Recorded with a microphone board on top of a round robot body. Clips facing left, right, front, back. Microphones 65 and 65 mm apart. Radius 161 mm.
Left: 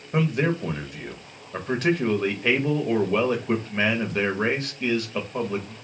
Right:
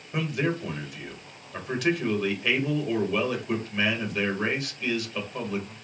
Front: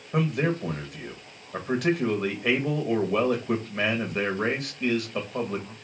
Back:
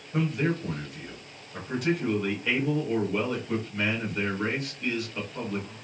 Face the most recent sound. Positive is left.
turn(degrees=35)